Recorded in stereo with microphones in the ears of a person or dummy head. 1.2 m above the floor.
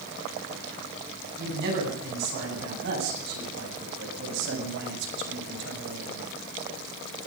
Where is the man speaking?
60° right (ahead or behind), 9.5 m; by 6.3 s 75° right (ahead or behind), 5.5 m.